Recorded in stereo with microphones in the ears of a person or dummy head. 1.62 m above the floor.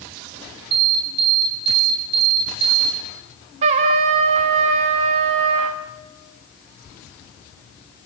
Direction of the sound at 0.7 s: 60° right (ahead or behind).